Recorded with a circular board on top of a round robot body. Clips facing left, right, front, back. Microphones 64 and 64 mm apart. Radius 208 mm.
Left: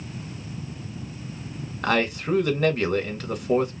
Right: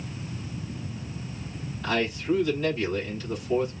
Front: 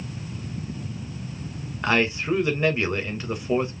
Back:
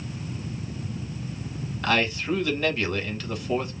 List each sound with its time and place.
1.8 s a man speaking: 70° left, 3 m